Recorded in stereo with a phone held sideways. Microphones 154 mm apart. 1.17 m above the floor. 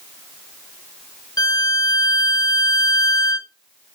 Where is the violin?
25° left (ahead or behind), 0.5 m.